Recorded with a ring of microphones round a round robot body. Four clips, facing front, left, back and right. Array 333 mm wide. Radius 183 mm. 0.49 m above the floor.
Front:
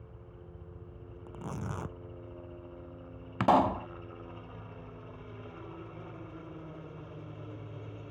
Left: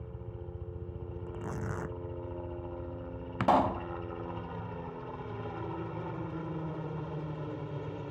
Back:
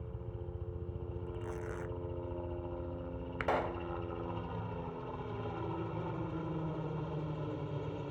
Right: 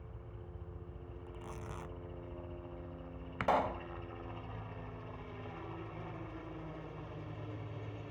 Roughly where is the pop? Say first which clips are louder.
Left 6 dB, front 10 dB; ahead left.